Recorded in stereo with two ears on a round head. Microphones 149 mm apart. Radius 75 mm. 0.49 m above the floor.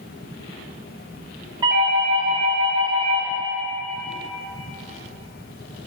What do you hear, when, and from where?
1.6 s a doorbell: 25° right (ahead or behind), 1.9 m